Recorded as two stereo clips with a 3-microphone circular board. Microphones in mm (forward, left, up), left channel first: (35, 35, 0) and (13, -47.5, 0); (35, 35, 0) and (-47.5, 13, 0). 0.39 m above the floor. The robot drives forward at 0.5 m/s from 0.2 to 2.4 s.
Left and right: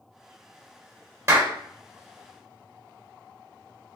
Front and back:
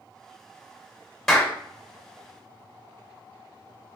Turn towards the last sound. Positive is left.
turn(degrees=-105)